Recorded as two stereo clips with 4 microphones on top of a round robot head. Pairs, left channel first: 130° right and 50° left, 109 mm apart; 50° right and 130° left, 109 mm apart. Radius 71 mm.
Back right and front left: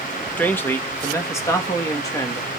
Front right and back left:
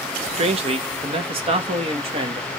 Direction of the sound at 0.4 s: 155° left.